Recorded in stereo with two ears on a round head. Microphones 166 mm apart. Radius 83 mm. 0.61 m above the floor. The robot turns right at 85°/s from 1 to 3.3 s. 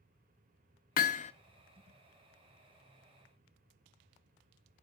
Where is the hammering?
50° left (ahead or behind), 0.9 m; by 1.3 s 40° left (ahead or behind), 0.9 m.